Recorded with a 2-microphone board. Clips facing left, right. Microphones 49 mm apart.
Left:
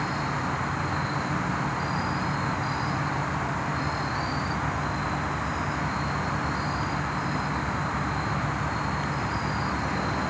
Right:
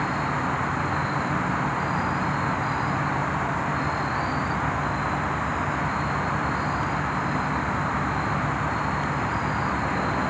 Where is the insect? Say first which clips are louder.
Right 3 dB; 15° right (ahead or behind).